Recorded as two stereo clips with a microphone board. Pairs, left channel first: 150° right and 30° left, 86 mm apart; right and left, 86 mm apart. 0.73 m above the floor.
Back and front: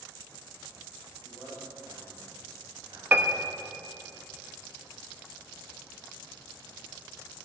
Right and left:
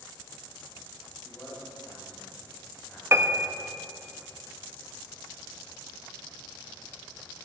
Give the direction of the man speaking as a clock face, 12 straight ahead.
1 o'clock.